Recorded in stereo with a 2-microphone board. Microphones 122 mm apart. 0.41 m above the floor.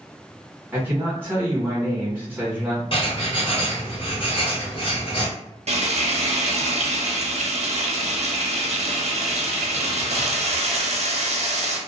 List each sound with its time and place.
0.7 s a man speaking: 15° right (ahead or behind), 1.2 m
2.9 s writing: 50° left (ahead or behind), 0.9 m
5.7 s frying: 60° right (ahead or behind), 0.6 m